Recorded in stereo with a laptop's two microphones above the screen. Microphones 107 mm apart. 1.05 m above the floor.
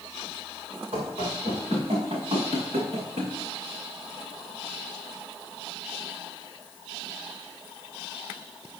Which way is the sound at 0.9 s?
55° right (ahead or behind).